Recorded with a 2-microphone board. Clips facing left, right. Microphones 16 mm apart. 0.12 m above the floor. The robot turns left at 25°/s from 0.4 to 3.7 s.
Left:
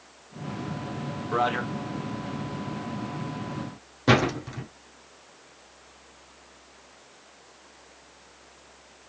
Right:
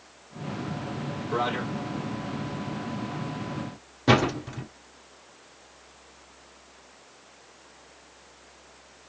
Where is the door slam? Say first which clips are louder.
Even; centre (ahead or behind), 1.4 m.